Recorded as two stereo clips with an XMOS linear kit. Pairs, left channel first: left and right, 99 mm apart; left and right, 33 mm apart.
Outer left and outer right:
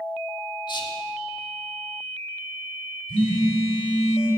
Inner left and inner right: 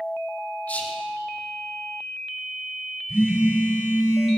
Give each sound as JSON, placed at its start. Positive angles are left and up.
{"t": 0.7, "sound": "whispering", "side_deg": 50, "distance_m": 1.1}
{"t": 3.1, "sound": "a phone buzzing", "side_deg": -55, "distance_m": 1.8}